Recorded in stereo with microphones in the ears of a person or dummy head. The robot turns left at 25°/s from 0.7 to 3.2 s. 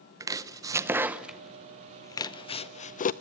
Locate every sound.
0.2 s chopping: 20° right (ahead or behind), 0.5 m; by 3.1 s 40° left (ahead or behind), 0.5 m